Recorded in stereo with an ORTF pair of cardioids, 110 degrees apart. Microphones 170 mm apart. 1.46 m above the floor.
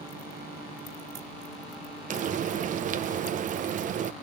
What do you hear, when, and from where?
2.1 s frying: 50° right, 0.9 m